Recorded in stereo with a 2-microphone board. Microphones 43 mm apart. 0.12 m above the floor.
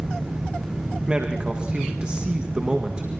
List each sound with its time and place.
1.1 s a man speaking: 20° right (ahead or behind), 8.5 m